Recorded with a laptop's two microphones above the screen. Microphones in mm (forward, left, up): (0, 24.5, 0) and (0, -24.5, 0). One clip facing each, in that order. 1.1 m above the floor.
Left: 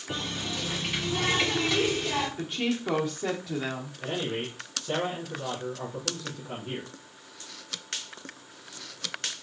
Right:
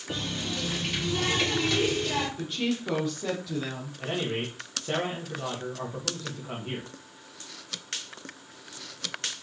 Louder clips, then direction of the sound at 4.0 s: Right 2 dB; 40° right (ahead or behind).